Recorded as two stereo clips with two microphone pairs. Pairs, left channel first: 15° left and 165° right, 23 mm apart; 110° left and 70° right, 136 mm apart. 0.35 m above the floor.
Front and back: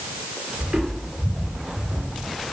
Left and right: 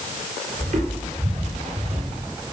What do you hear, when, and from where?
0.6 s footsteps: 95° right, 6.5 m